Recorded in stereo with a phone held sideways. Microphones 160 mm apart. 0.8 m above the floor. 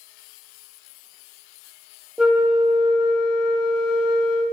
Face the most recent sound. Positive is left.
turn(degrees=-5)  # may be behind; listen again after turning